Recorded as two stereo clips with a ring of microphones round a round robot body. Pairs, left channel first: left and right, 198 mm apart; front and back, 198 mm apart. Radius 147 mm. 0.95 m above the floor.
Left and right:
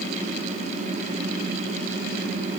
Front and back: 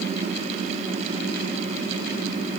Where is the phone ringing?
No phone ringing in this recording.